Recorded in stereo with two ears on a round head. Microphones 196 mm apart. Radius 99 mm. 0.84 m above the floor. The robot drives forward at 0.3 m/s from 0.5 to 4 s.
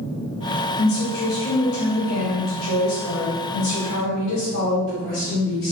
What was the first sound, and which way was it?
A woman speaking, 65° left (ahead or behind).